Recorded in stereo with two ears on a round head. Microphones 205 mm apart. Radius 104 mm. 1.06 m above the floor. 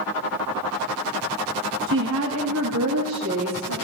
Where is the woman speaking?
60° right (ahead or behind), 0.9 m; by 3.7 s 80° right, 2.5 m.